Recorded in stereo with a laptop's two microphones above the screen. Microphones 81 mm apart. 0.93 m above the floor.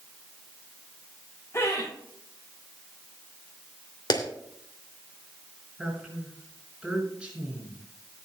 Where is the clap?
55° left (ahead or behind), 2.5 m.